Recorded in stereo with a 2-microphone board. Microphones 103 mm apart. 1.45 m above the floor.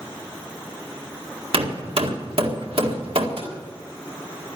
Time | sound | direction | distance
1.5 | hammering | 70° right (ahead or behind) | 1.8 m
3.4 | tapping | 80° right | 5.5 m